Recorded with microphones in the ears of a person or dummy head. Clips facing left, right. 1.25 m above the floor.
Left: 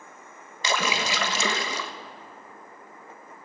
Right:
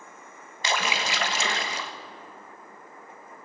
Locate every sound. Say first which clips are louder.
0.6 s a splash: left 2 dB; 80° left, 1.4 m